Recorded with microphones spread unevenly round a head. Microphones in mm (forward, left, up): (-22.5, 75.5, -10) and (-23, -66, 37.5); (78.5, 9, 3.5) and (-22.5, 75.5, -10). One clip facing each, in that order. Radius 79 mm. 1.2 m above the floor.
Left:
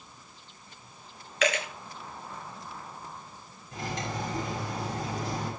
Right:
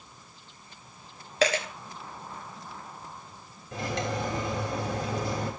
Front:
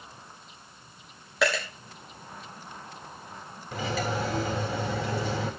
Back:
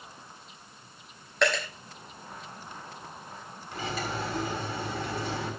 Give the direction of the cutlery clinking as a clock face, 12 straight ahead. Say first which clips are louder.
Right 4 dB, front 4 dB; 2 o'clock.